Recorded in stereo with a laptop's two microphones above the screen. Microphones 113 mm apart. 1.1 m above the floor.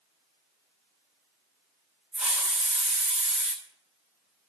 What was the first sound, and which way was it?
A hiss, 10° right (ahead or behind).